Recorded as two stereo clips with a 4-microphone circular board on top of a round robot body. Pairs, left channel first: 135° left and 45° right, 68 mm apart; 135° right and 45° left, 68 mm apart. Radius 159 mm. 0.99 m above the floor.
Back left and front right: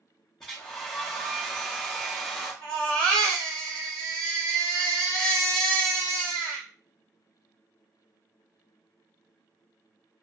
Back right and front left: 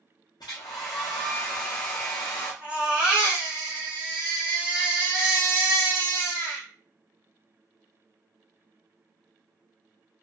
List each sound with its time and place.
0.4 s a hair dryer: 145° right, 0.6 m
2.6 s a baby crying: 120° left, 0.6 m